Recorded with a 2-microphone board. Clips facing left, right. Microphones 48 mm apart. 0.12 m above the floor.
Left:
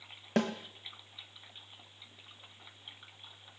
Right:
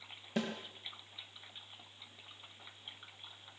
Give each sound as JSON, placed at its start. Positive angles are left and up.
{"t": 0.4, "sound": "a snare drum", "side_deg": 60, "distance_m": 3.0}